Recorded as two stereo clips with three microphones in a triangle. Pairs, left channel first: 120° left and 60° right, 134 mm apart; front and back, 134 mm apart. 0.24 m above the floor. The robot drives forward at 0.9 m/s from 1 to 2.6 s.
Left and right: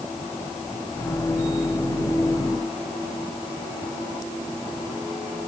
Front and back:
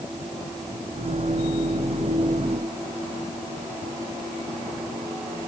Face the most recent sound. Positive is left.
No sound to turn to.